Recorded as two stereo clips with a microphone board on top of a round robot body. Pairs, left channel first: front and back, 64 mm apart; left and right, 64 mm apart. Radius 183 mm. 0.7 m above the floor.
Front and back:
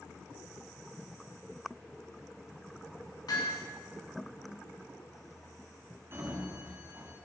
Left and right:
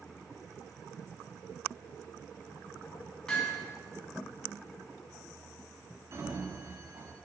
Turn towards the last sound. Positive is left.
turn(degrees=-130)